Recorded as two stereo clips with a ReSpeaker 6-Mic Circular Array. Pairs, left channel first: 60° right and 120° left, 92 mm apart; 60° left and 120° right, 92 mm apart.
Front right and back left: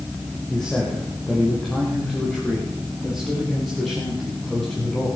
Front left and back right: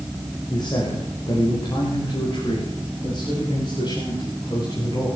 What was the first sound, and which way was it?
A man speaking, 25° left.